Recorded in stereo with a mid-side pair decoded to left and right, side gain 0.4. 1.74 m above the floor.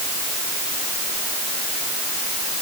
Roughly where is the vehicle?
I don't hear a vehicle.